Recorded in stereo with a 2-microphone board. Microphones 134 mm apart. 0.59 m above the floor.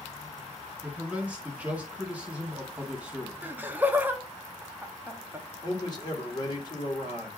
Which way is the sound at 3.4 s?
15° right (ahead or behind).